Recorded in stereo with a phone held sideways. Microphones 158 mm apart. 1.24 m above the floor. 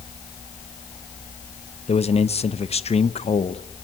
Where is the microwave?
I don't hear a microwave.